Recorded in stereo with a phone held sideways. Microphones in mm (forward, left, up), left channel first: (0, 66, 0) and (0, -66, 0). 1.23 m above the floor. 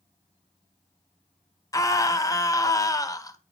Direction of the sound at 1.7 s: 25° left (ahead or behind).